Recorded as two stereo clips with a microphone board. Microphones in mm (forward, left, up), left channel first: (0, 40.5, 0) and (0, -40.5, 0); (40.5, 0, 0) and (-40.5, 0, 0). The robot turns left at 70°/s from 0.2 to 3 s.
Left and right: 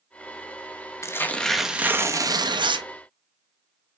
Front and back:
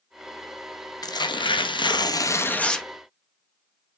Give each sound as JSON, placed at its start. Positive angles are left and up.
{"t": 1.0, "sound": "tearing paper", "azimuth_deg": 40, "distance_m": 0.5}